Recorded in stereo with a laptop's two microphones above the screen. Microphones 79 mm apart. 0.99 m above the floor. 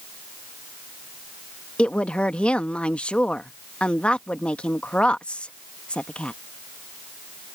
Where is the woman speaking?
15° left (ahead or behind).